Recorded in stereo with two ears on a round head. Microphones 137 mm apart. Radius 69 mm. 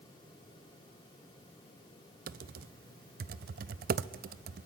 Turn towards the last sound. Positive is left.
turn(degrees=-60)  # may be behind; listen again after turning